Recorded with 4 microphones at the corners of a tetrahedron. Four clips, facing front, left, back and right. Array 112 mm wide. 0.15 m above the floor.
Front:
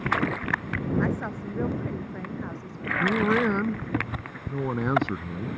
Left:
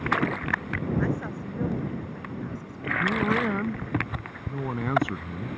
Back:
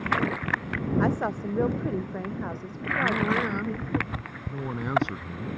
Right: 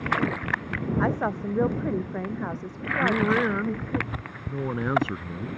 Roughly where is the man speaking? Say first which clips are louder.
Right 3 dB, front 3 dB; ahead.